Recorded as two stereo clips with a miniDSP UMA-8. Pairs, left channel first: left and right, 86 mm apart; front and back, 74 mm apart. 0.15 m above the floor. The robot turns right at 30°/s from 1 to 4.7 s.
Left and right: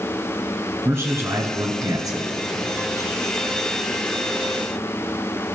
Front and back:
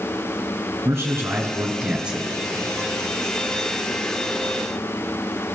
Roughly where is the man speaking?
Behind right.